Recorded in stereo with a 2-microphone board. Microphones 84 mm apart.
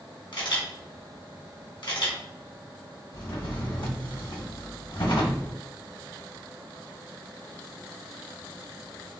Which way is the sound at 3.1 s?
85° left.